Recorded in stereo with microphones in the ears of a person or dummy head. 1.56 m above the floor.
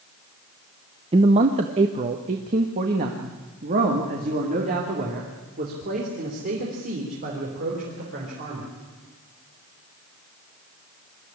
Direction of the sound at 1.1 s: 25° right (ahead or behind).